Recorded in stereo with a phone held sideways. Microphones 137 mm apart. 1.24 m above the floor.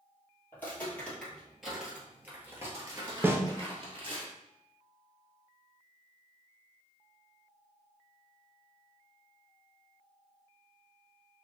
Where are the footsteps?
15° left (ahead or behind), 1.7 m; by 4.2 s 45° right (ahead or behind), 1.6 m.